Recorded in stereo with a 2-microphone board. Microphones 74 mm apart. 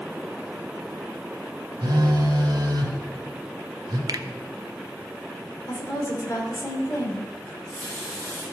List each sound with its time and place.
1.8 s a phone buzzing: 85° right, 1.4 m
4.1 s a finger snap: 60° right (ahead or behind), 0.6 m
5.7 s a woman speaking: 50° left (ahead or behind), 3 m
7.5 s a running tap: 30° left (ahead or behind), 5 m